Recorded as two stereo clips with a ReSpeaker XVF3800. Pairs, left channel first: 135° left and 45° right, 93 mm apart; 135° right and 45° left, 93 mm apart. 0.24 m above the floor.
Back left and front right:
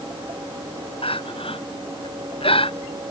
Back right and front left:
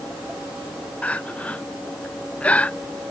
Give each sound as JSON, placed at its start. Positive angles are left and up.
{"t": 1.0, "sound": "crying", "azimuth_deg": 150}